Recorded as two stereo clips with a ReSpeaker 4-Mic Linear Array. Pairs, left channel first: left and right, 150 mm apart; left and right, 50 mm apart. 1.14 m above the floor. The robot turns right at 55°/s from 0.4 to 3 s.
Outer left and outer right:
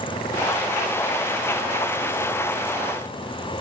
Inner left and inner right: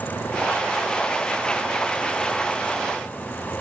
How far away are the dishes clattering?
No dishes clattering in this recording.